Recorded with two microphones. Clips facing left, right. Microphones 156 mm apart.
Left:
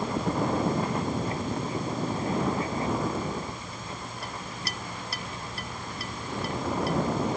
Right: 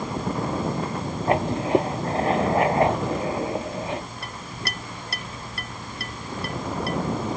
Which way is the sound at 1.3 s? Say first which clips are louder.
Right 10 dB; 80° right.